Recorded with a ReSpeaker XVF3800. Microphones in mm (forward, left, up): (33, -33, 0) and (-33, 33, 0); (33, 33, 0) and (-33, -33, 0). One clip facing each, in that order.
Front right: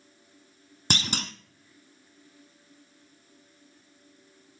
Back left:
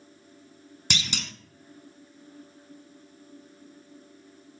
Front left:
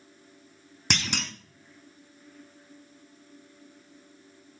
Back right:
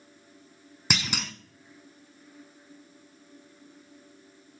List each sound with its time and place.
0.9 s a clunk: 50° right, 0.8 m